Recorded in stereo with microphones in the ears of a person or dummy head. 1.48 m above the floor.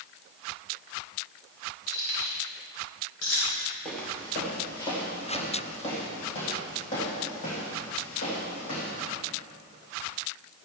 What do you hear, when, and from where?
1.9 s keys jangling: 70° left (ahead or behind), 3.5 m; by 3.8 s 80° left, 4.5 m
3.9 s footsteps: 5° left (ahead or behind), 2 m; by 8.9 s 45° left (ahead or behind), 5 m